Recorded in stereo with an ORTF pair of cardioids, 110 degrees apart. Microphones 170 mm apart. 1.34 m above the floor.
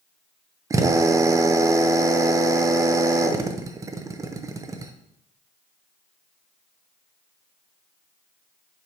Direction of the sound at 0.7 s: 20° right.